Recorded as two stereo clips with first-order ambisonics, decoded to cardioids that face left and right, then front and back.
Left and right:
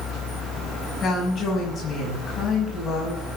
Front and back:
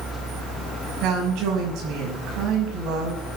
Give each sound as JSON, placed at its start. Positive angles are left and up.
{"t": 1.0, "sound": "a woman speaking", "azimuth_deg": 145, "distance_m": 5.5}